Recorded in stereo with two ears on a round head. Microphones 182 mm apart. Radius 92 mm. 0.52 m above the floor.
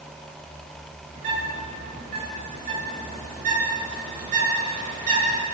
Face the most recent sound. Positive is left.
turn(degrees=-40)  # may be behind; listen again after turning